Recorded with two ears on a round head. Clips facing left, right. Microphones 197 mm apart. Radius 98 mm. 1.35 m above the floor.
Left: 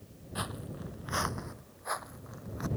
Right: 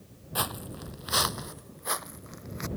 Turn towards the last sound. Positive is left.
turn(degrees=-30)  # may be behind; listen again after turning